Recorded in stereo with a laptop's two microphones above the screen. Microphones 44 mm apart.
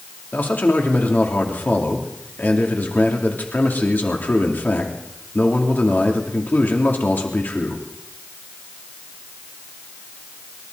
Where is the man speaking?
45° left (ahead or behind), 2.5 m.